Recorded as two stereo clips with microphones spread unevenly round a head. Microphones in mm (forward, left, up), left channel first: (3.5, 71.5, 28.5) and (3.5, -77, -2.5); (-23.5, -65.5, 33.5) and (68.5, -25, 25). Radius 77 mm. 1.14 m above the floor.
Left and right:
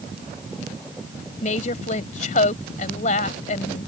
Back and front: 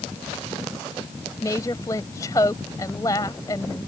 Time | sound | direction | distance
1.4 | a woman speaking | 135° left | ?